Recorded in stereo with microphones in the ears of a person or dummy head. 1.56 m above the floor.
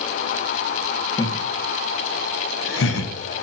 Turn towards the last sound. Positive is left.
turn(degrees=75)  # may be behind; listen again after turning